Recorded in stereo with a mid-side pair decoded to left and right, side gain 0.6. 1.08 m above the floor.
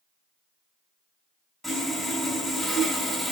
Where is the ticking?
No ticking in this recording.